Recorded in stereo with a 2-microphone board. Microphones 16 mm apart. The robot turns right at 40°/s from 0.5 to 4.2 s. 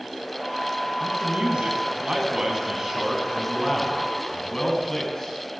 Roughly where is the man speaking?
Right.